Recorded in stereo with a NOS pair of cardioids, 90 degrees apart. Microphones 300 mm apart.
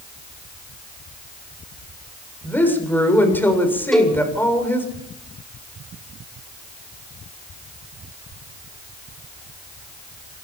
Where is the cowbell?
Straight ahead, 5 m.